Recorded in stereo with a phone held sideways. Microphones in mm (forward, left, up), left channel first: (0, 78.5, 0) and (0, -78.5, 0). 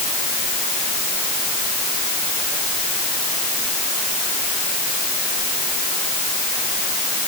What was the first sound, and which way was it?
Only background noise.